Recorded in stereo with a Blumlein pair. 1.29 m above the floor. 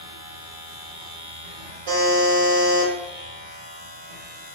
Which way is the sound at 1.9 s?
60° right.